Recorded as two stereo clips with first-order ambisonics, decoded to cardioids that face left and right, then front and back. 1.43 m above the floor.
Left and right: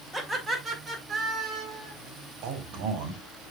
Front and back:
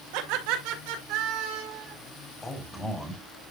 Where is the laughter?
175° right, 3 m; by 1.9 s 150° right, 4 m.